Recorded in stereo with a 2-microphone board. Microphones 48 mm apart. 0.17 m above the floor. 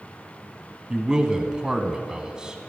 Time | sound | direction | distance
0.9 | a man speaking | 20° right (ahead or behind) | 1.0 m